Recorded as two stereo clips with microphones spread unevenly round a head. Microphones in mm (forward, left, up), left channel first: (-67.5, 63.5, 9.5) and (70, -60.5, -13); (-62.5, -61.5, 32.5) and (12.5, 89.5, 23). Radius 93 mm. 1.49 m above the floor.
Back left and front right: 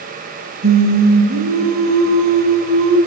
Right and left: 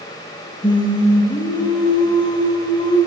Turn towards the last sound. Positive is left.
turn(degrees=-55)